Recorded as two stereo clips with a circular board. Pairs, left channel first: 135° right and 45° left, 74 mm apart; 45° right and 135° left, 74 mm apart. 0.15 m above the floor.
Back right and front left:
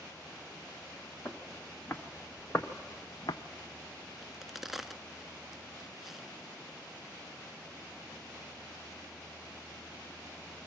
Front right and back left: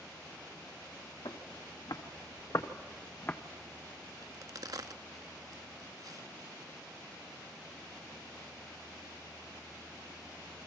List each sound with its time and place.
1.2 s footsteps: 60° right, 1.8 m; by 3.4 s 110° right, 0.9 m
4.2 s a crack: 130° left, 0.5 m